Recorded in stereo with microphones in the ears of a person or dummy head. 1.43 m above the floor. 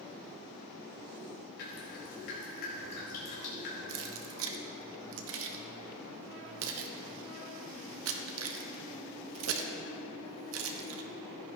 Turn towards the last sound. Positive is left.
turn(degrees=-75)  # may be behind; listen again after turning